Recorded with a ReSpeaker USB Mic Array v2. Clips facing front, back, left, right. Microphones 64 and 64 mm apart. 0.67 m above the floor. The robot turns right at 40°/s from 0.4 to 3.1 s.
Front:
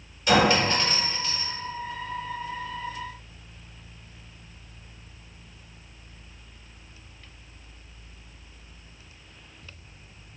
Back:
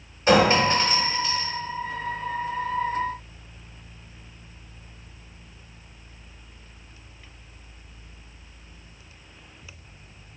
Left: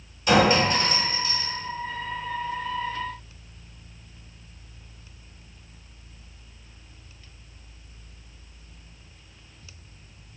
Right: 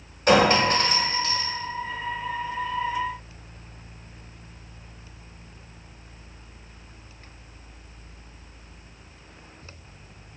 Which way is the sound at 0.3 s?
125° right.